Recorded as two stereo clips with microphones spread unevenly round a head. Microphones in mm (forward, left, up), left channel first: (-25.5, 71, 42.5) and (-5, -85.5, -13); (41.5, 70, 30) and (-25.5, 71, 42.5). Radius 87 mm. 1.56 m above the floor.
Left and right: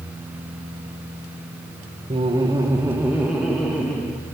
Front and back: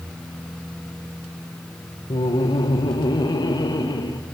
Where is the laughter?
20° right, 1.4 m; by 4.2 s 15° left, 2.5 m.